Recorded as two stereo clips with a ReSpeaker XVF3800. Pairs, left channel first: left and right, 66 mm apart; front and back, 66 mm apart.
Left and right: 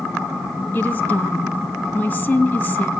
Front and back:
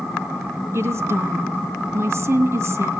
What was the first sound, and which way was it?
A woman speaking, 145° left.